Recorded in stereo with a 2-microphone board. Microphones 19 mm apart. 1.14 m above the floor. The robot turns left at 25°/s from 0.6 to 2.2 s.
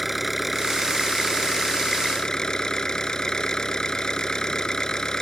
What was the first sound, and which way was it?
An engine running, 175° right.